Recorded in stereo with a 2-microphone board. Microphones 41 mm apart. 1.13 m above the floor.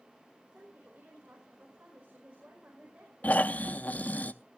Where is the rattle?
No rattle in this recording.